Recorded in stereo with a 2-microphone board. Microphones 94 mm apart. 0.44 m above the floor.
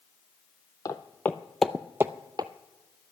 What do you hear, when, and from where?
0.8 s footsteps: 35° left (ahead or behind), 0.7 m; by 2.5 s 50° right (ahead or behind), 0.6 m